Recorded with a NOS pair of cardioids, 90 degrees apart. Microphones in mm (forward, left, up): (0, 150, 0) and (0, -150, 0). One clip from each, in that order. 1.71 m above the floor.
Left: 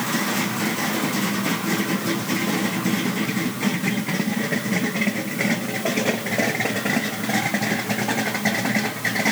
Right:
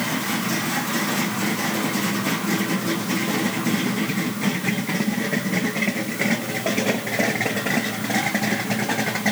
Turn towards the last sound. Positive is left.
No sound to turn to.